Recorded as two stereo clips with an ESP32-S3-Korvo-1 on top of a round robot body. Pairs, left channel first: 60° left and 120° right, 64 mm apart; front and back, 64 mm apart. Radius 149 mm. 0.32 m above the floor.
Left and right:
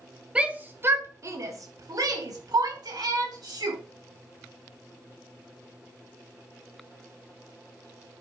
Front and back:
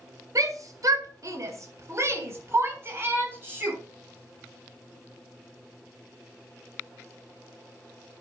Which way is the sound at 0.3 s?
170° left.